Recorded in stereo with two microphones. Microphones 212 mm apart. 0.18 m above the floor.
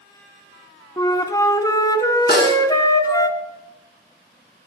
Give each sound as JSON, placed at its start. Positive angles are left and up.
{"t": 1.0, "sound": "a flute", "side_deg": 15, "distance_m": 0.6}
{"t": 2.3, "sound": "a snare drum", "side_deg": 55, "distance_m": 1.9}